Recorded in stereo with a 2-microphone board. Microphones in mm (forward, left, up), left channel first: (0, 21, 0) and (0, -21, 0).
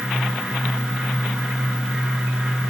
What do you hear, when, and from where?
Only background noise.